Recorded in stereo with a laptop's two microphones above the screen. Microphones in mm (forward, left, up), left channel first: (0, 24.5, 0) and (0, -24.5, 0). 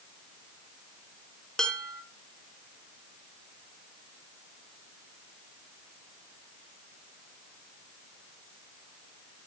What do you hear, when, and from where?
1.6 s dishes clattering: 15° left (ahead or behind), 1.9 m